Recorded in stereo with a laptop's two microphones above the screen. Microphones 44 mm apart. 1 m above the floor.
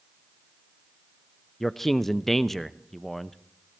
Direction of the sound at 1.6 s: 5° left (ahead or behind).